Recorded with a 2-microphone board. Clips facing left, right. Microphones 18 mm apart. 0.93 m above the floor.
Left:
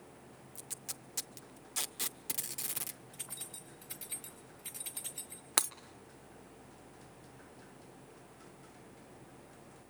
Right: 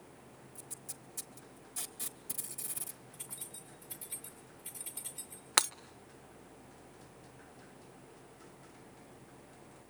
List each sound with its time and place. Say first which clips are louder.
0.6 s tape being pulled: left 5 dB; 60° left (ahead or behind), 0.8 m
3.1 s keys jangling: left 1 dB; 75° left (ahead or behind), 4 m
5.6 s breaking glass: right 5 dB; 25° right (ahead or behind), 0.6 m